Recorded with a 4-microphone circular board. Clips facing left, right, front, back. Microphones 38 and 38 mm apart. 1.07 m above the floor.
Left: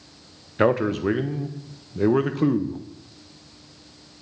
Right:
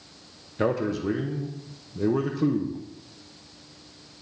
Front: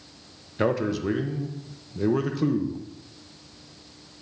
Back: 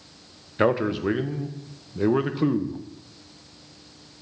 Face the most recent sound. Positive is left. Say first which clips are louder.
# left 5 dB, back 3 dB
turn(degrees=120)